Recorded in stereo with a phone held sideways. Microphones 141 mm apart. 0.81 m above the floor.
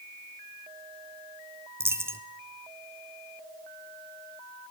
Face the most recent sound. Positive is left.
turn(degrees=-20)  # may be behind; listen again after turning